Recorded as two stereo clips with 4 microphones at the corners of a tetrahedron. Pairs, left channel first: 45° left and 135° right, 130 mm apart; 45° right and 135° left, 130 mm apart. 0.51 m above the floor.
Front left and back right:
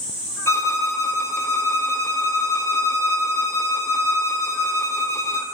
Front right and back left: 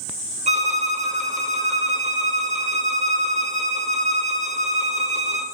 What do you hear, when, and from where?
0.5 s a violin: 115° left, 0.6 m